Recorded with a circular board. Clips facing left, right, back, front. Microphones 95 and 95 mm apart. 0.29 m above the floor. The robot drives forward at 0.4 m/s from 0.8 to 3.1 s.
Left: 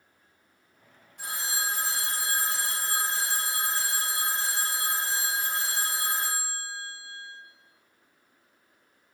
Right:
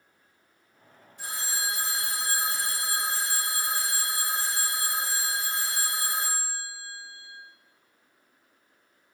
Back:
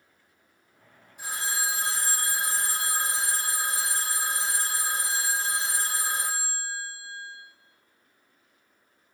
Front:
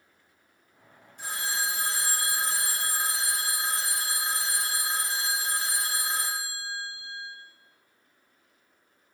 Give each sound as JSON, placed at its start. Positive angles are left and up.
{"t": 1.2, "sound": "a phone ringing", "azimuth_deg": 100, "distance_m": 1.8}